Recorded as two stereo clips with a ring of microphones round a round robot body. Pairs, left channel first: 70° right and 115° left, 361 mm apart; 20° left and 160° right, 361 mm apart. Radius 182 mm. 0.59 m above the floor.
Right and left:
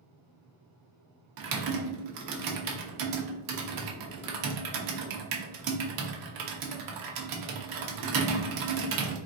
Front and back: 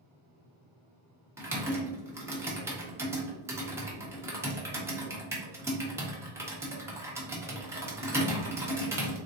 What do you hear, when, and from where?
1.4 s typing on a keyboard: 120° left, 0.9 m